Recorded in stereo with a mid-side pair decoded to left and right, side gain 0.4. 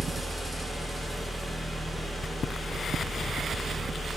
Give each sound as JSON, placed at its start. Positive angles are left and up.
{"t": 0.0, "sound": "a fan", "azimuth_deg": -10, "distance_m": 0.7}